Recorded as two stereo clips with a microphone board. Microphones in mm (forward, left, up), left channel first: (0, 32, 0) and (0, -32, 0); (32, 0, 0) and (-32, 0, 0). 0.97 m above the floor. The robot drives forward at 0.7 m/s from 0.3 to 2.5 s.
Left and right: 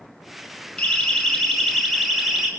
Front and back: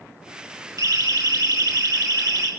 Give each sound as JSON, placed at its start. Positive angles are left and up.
{"t": 0.8, "sound": "a siren", "azimuth_deg": 165, "distance_m": 5.5}